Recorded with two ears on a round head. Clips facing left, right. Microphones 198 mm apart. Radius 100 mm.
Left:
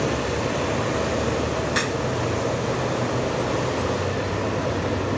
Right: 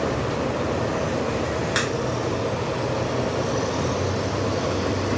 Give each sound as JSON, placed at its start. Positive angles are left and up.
{"t": 1.8, "sound": "a crack", "side_deg": -15, "distance_m": 1.4}